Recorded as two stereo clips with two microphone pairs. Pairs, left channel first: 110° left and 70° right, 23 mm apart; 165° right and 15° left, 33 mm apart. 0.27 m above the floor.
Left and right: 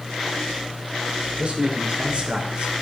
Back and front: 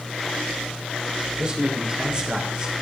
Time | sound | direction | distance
1.4 | a man speaking | 45° right | 4 m